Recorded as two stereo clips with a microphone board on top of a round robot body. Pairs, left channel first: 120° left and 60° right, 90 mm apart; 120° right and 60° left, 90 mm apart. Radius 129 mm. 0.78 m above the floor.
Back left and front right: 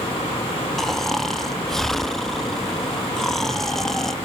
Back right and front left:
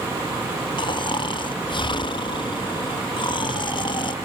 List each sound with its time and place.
0.8 s snoring: 155° right, 0.8 m